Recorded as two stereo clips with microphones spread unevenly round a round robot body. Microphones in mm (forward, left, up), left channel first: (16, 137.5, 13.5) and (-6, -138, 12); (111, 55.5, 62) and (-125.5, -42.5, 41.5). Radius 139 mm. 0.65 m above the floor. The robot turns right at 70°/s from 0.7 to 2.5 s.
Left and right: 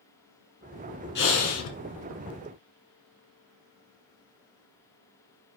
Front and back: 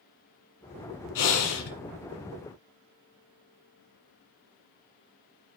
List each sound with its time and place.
1.1 s breathing: 30° left, 1.7 m; by 1.7 s 70° left, 1.7 m